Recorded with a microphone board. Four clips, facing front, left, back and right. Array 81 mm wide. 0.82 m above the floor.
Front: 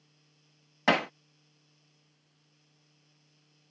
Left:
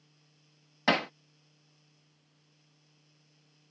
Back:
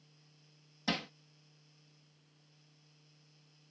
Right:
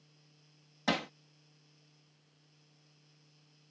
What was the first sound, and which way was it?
Hammering, 20° left.